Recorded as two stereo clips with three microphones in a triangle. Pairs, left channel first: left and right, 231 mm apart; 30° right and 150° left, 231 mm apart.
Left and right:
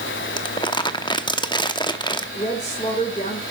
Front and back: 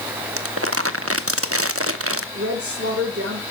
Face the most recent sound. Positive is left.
turn(degrees=150)